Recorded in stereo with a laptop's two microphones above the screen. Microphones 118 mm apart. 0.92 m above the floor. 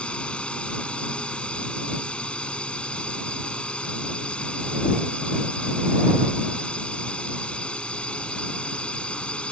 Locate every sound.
0.0 s a drone: 10° left (ahead or behind)